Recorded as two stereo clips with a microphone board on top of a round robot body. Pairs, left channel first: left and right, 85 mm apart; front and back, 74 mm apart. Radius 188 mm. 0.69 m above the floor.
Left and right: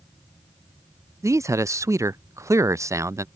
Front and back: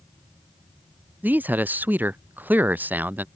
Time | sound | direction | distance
1.2 | a man speaking | 125° right | ?